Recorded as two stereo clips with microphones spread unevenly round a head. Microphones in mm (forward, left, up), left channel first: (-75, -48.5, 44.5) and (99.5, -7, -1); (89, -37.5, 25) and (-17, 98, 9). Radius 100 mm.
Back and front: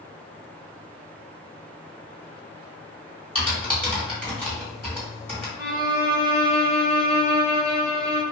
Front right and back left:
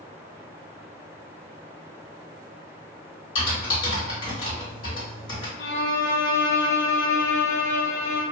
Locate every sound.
3.4 s typing on a keyboard: 85° right, 1.9 m
5.6 s a violin: 50° right, 0.9 m